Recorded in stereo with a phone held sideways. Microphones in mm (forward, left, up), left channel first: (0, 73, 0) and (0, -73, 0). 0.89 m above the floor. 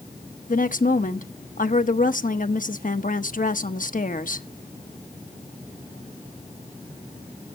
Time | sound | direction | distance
0.5 | a woman speaking | 65° left (ahead or behind) | 1.1 m